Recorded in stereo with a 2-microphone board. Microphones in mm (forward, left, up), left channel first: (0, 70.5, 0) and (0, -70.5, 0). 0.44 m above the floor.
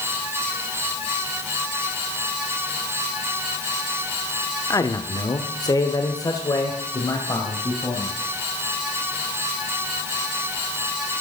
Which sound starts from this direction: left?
A man speaking, at 4.7 s.